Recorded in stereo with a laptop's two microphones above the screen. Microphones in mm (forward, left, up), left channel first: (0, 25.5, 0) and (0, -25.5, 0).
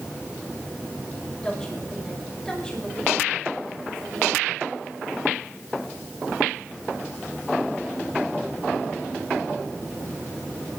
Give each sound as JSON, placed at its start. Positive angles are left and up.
{"t": 1.4, "sound": "a woman speaking", "side_deg": 10, "distance_m": 5.0}